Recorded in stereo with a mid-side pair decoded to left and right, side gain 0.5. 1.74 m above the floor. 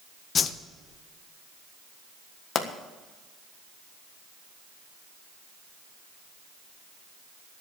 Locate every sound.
0.3 s a whoosh: 45° left, 1.0 m
2.5 s a pop: 50° left, 1.5 m